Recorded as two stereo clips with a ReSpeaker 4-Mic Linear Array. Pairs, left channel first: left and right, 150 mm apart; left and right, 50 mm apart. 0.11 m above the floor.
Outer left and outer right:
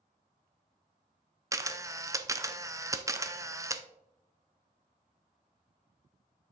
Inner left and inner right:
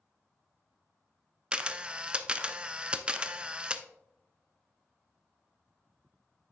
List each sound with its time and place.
1.5 s a camera shutter: 20° right (ahead or behind), 0.6 m